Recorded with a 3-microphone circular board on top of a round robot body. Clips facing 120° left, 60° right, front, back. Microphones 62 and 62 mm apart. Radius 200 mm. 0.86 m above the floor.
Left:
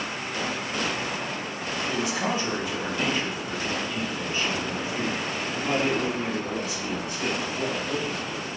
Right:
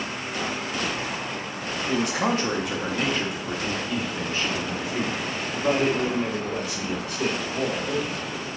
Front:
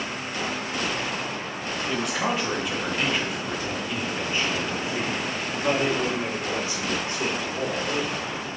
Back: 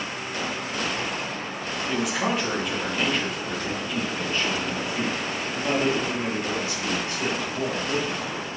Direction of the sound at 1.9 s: 95° right.